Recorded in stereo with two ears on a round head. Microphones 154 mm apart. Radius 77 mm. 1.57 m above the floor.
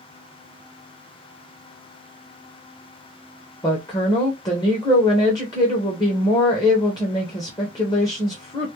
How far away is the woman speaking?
About 1.2 m.